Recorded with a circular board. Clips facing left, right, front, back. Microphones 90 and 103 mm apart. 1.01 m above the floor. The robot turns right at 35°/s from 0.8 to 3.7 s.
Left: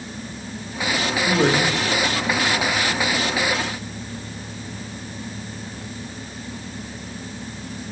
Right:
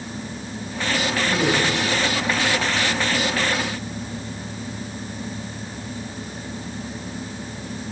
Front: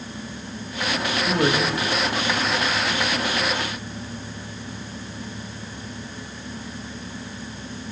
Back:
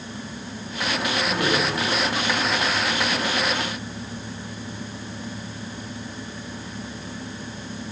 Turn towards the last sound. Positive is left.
turn(degrees=135)